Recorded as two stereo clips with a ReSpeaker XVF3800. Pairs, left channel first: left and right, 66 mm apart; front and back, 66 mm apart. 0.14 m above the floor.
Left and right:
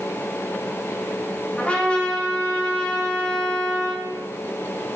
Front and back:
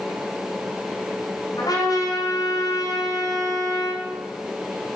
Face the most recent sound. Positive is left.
turn(degrees=15)